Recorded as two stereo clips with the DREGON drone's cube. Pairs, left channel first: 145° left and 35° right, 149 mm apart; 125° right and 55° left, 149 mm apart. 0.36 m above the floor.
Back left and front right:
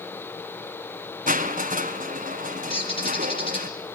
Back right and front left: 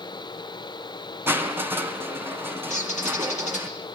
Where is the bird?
160° right, 6 m.